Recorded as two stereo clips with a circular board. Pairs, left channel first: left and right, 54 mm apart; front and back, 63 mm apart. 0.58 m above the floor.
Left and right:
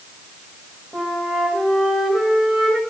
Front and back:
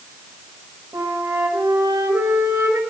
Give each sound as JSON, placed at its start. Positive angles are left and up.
{"t": 0.9, "sound": "a flute", "azimuth_deg": 175, "distance_m": 1.5}